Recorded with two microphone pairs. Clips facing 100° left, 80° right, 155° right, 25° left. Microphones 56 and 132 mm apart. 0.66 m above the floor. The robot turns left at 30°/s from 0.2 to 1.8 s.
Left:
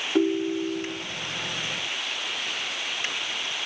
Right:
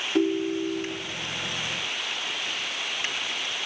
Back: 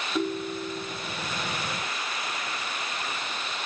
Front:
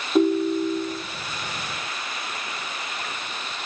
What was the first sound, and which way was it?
A ringtone, 20° left.